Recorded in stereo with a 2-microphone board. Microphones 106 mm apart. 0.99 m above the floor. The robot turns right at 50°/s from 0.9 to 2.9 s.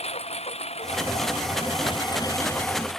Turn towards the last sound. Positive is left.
turn(degrees=175)